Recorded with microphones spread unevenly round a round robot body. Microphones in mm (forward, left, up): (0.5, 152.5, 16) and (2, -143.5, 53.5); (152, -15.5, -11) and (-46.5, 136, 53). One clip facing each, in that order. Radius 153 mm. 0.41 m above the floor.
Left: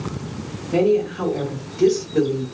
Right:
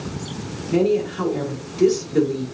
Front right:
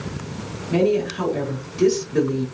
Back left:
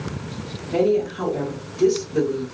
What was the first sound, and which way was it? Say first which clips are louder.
A woman speaking: left 1 dB, even; 35° right.